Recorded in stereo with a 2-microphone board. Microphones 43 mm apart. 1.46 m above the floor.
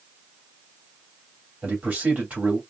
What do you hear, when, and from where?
1.6 s a man speaking: 40° right (ahead or behind), 2.5 m